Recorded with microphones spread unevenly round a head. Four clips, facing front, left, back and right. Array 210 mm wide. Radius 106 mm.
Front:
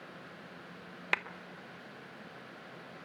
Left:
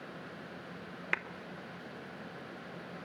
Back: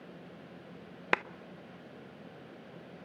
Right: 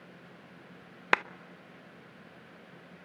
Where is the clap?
135° right, 0.6 m.